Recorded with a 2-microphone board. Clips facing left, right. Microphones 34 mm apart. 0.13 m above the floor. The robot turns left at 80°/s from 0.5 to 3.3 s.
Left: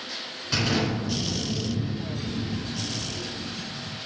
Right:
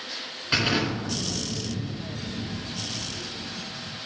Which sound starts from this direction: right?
An explosion, at 0.5 s.